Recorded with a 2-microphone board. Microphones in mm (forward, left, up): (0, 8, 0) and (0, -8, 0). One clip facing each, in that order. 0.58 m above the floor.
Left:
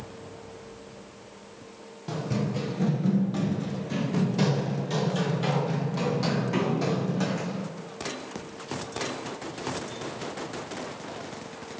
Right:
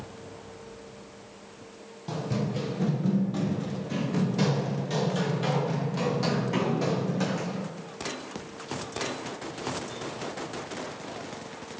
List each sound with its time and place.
2.1 s running footsteps: centre (ahead or behind), 0.8 m